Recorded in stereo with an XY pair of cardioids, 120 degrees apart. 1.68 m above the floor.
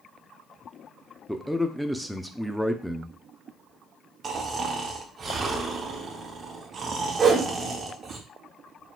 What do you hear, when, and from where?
1.3 s a man speaking: 5° left, 0.6 m
4.2 s snoring: 30° right, 1.1 m
7.2 s a whoosh: 35° right, 1.2 m